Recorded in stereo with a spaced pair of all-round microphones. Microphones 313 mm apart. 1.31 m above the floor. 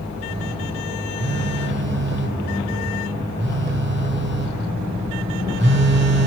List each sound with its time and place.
1.2 s a phone buzzing: 35° right (ahead or behind), 1.5 m